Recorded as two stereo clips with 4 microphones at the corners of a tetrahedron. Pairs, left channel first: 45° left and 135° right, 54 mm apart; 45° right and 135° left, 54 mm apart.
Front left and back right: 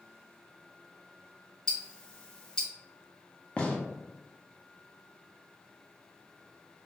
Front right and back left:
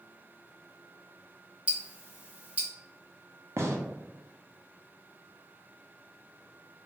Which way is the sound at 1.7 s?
105° left.